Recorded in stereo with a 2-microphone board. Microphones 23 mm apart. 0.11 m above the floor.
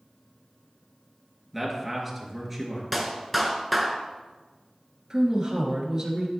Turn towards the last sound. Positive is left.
turn(degrees=-30)  # may be behind; listen again after turning